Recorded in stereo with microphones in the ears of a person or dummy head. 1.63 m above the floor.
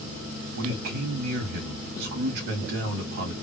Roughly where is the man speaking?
Right.